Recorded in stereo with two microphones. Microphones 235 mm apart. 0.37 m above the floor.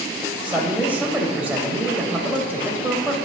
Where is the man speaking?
5° right (ahead or behind), 1.5 m.